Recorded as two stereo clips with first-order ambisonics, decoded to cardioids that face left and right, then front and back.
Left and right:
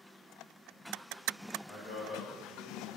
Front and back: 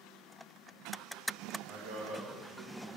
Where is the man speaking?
160° left, 3 m.